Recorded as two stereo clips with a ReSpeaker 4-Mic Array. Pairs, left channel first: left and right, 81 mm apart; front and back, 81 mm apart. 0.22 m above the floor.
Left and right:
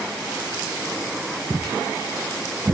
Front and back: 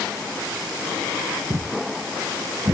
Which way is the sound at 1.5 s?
150° right.